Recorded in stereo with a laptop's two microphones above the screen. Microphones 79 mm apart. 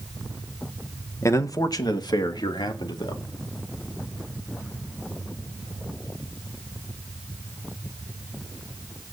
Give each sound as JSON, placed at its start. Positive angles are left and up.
{"t": 1.2, "sound": "a man speaking", "side_deg": 40, "distance_m": 0.9}